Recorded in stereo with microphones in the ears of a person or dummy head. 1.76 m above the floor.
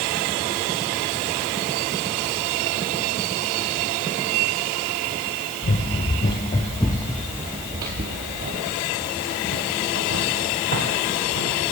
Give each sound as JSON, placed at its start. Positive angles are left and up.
{"t": 5.6, "sound": "running footsteps", "side_deg": 40, "distance_m": 2.5}